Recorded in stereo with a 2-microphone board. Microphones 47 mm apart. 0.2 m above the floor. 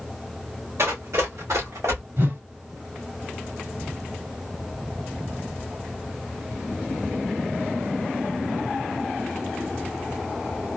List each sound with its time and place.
0.8 s running footsteps: 75° right (ahead or behind), 2.5 m; by 2.0 s 85° right, 2.5 m
2.2 s a whoosh: 60° right (ahead or behind), 2.5 m